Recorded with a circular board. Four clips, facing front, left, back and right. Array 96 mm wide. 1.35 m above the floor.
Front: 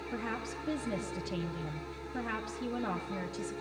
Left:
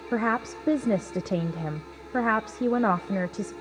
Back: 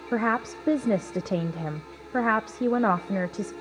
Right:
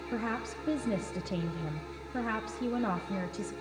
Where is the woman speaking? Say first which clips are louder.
Left 9 dB, back 14 dB; 140° left, 0.7 m.